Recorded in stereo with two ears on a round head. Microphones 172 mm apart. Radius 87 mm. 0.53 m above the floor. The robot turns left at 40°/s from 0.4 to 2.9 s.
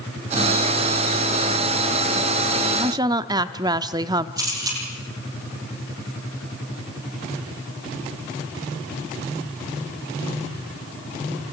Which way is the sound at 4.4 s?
20° right (ahead or behind).